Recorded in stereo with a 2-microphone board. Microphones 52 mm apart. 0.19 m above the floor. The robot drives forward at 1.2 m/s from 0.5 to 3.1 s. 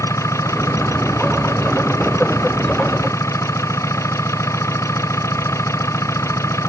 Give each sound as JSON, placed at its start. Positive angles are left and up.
{"t": 0.0, "sound": "an engine running", "side_deg": 75}